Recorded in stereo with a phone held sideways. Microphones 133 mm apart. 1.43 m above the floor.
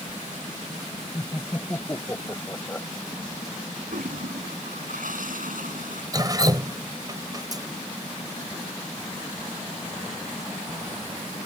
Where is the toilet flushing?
75° right (ahead or behind).